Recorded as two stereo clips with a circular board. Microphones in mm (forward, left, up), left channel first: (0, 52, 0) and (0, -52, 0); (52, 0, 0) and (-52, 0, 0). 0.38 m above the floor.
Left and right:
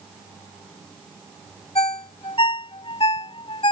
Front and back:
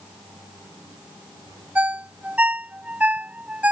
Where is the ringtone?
105° left.